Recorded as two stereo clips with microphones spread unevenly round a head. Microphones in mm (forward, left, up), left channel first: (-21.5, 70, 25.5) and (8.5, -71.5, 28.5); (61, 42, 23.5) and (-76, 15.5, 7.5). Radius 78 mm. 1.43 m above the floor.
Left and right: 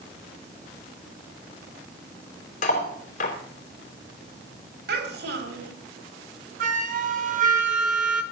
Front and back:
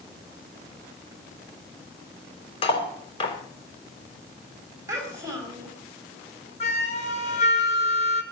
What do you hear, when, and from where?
2.6 s cutlery clinking: 60° left, 3.5 m
4.9 s a child speaking: 95° right, 4.5 m
6.6 s a flute: 40° right, 1.3 m